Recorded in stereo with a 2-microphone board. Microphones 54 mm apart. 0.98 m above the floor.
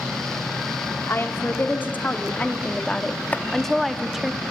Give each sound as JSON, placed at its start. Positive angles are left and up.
{"t": 1.1, "sound": "a woman speaking", "side_deg": 45, "distance_m": 2.5}
{"t": 3.3, "sound": "chopping", "side_deg": 30, "distance_m": 1.1}